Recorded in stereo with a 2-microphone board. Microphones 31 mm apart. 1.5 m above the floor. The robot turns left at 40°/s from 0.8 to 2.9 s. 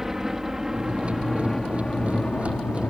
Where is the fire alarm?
No fire alarm in this recording.